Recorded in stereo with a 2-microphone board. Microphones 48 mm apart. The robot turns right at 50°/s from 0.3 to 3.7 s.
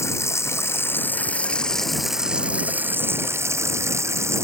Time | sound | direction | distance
0.0 | running water | 95° left | ?